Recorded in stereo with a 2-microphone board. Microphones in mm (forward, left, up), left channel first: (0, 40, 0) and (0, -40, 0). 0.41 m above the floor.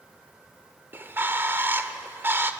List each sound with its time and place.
0.9 s a bird: 30° right (ahead or behind), 1.1 m